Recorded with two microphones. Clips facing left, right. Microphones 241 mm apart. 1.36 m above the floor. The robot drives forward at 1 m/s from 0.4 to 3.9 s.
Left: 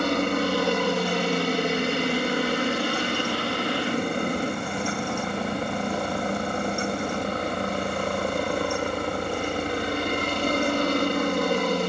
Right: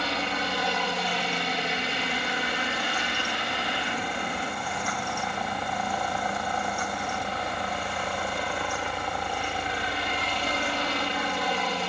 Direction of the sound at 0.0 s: 50° left (ahead or behind).